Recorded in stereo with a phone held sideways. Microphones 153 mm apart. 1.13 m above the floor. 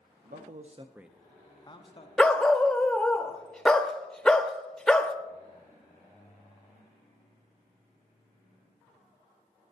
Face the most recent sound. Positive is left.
turn(degrees=5)  # may be behind; listen again after turning